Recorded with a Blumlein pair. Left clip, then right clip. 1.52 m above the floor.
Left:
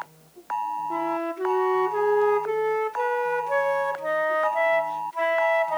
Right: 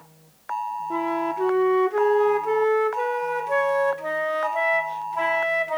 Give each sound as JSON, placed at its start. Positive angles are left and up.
{"t": 0.9, "sound": "a flute", "azimuth_deg": -10, "distance_m": 1.6}